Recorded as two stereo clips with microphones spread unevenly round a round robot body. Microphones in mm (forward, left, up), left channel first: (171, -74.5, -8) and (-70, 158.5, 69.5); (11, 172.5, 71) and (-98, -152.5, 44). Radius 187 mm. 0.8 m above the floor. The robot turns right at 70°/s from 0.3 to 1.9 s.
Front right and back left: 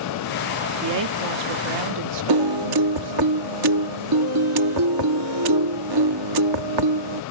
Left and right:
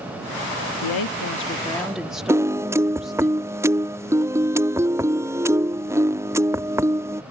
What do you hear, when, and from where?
0.8 s a woman speaking: 90° left; by 3.3 s 165° left
2.3 s a piano: 170° left